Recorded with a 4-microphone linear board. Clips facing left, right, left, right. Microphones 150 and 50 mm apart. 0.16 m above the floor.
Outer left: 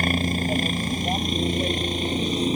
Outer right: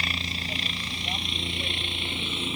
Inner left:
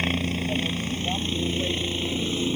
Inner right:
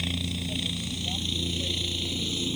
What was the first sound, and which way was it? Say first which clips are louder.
A helicopter: outer left 12 dB, inner left 6 dB; 50° left (ahead or behind).